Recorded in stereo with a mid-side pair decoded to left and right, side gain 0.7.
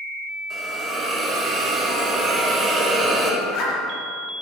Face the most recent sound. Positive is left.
turn(degrees=55)